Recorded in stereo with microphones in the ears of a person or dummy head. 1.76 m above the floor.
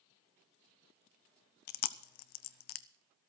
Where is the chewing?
60° left (ahead or behind), 0.7 m.